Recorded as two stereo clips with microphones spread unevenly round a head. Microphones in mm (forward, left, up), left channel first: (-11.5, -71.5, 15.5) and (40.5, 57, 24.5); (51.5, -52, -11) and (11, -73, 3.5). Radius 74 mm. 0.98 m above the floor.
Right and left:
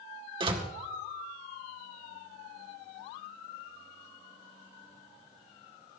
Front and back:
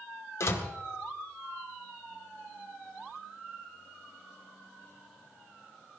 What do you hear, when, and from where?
0.4 s a door slam: 10° left, 2 m